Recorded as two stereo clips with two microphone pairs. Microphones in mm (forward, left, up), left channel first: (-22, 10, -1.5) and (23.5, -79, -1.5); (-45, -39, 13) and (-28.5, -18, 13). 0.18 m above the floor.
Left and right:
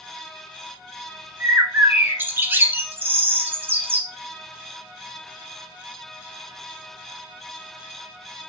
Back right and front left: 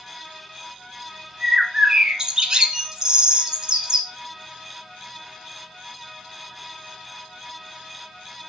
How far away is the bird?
About 1.1 m.